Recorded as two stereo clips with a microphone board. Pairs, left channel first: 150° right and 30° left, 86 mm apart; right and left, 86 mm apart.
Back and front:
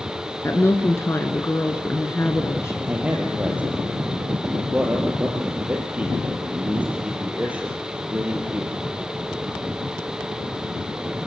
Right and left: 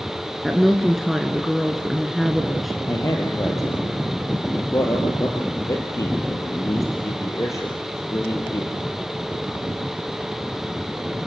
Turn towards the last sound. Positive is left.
turn(degrees=-40)